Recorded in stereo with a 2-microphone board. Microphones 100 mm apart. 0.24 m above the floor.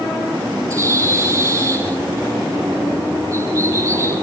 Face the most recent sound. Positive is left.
turn(degrees=-30)  # may be behind; listen again after turning